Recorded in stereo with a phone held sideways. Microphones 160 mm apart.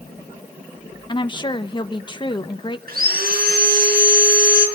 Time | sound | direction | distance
1.1 | a woman speaking | 30° left (ahead or behind) | 1.0 m
2.9 | sawing | 70° right (ahead or behind) | 5.5 m